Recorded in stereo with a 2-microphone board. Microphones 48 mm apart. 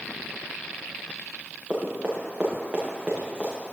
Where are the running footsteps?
30° right (ahead or behind), 7 m; by 3.5 s 20° right (ahead or behind), 7 m.